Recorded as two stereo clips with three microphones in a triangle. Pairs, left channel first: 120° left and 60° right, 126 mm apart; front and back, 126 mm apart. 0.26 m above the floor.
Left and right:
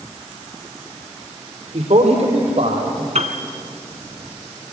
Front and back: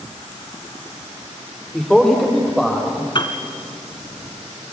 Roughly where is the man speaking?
Right.